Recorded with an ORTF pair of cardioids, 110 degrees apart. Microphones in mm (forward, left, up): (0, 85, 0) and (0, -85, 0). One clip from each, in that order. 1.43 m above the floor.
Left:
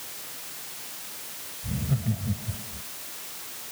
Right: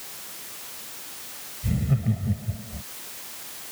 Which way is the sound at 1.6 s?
55° right.